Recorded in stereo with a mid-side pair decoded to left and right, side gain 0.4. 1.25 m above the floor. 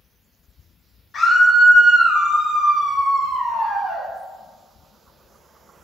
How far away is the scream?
About 1.8 m.